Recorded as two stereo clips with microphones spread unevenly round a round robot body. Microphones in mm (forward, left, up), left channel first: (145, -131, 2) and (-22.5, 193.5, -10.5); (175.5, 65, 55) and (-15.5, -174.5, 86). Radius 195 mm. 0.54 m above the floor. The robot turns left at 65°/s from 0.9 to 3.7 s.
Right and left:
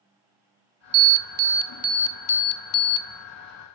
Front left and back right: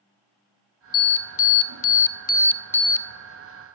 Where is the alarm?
95° left, 0.8 m; by 3.1 s 45° right, 0.8 m.